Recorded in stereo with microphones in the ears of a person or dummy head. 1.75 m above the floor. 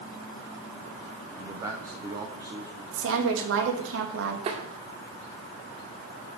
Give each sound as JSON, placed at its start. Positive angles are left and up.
{"t": 1.4, "sound": "a man speaking", "side_deg": -10, "distance_m": 0.8}
{"t": 2.9, "sound": "a woman speaking", "side_deg": -75, "distance_m": 2.0}
{"t": 4.5, "sound": "tapping", "side_deg": -40, "distance_m": 1.8}